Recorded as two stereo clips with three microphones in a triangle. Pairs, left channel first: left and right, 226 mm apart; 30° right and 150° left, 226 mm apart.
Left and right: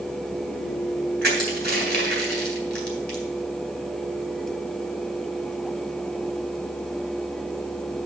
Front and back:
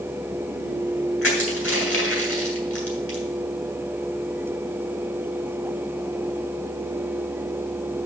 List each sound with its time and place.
1.2 s crushing: 50° right, 3 m